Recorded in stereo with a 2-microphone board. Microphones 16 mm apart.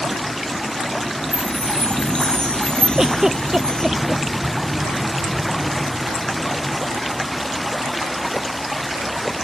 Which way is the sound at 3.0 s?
40° right (ahead or behind).